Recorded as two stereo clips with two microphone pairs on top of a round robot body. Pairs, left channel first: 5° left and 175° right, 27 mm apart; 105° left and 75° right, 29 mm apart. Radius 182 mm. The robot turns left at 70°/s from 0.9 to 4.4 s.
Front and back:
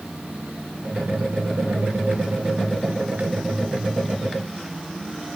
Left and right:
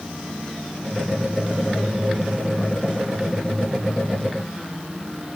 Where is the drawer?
No drawer in this recording.